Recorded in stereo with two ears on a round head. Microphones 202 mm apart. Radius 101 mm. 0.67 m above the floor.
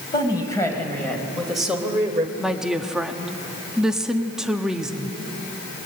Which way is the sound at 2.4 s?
5° right (ahead or behind).